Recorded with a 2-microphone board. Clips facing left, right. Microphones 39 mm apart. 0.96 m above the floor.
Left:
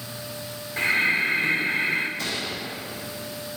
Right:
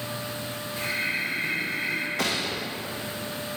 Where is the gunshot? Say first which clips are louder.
Right 2 dB; 70° right (ahead or behind), 1.0 m.